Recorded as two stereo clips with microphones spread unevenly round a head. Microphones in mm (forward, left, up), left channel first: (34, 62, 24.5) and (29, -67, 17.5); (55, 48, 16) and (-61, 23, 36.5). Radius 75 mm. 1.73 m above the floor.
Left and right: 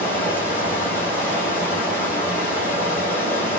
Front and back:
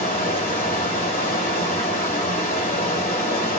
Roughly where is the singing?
I don't hear singing.